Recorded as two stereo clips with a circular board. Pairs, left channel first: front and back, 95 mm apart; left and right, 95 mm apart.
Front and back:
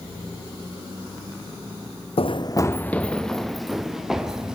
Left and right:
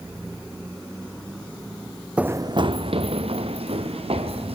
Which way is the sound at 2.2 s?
10° right.